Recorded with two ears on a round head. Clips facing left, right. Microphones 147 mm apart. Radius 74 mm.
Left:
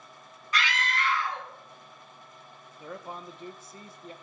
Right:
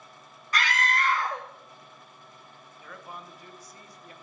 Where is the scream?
40° right (ahead or behind), 0.9 m.